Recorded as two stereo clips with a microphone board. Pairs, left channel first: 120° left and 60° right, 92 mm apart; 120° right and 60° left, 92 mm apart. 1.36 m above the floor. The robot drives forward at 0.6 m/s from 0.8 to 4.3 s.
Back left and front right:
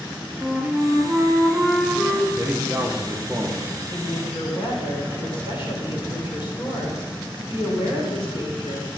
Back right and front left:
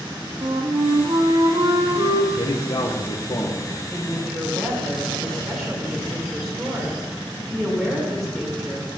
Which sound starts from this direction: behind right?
A man speaking, at 2.3 s.